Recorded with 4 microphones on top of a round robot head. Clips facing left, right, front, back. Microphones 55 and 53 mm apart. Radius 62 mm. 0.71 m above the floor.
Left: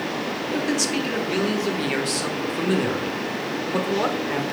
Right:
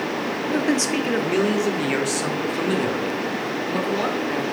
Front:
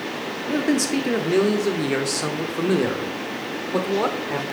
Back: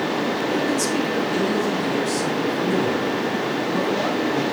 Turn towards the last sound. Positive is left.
turn(degrees=15)